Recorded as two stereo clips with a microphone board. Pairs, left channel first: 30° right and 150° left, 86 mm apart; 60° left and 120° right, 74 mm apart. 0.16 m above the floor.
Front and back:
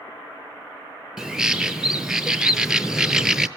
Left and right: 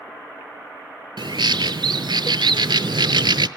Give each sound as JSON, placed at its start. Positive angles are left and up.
{"t": 1.2, "sound": "a bird", "azimuth_deg": -125, "distance_m": 0.7}